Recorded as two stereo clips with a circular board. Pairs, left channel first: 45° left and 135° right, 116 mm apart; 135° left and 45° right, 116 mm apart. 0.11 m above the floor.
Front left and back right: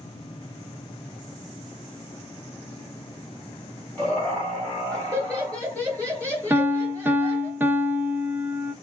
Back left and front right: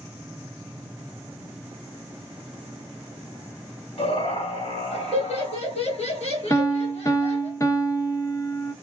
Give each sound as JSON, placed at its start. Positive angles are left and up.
{"t": 4.0, "sound": "laughter", "azimuth_deg": 125, "distance_m": 3.5}
{"t": 6.5, "sound": "a piano", "azimuth_deg": 165, "distance_m": 0.7}